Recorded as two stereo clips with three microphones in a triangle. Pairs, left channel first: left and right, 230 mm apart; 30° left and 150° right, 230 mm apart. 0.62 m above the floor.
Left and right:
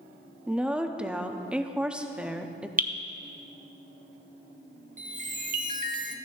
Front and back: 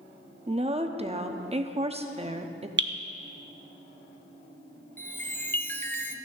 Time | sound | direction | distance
0.5 | a woman speaking | 170° right | 0.7 m
2.8 | dripping | 135° right | 0.8 m
5.0 | a chime | 50° right | 0.6 m